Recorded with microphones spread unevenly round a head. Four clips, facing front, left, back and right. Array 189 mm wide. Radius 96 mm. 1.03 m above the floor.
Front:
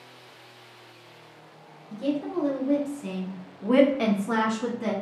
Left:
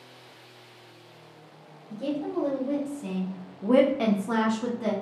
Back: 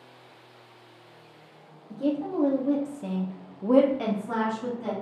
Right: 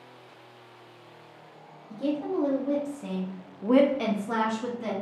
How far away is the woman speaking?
About 1.4 m.